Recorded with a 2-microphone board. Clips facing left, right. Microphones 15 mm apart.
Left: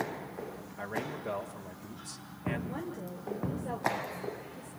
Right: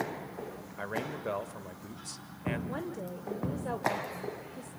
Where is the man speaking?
25° right (ahead or behind), 1.9 m.